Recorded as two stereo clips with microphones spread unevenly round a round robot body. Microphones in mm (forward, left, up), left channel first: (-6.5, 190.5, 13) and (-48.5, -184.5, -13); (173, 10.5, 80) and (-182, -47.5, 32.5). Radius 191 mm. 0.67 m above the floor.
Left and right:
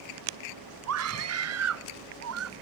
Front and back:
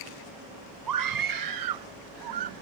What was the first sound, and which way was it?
A scream, 140° right.